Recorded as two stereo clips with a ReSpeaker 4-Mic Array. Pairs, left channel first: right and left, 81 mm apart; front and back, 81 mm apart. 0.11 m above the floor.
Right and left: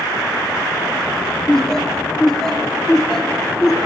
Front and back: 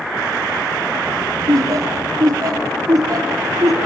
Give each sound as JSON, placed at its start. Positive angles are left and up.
{"t": 1.5, "sound": "laughter", "azimuth_deg": -170, "distance_m": 2.5}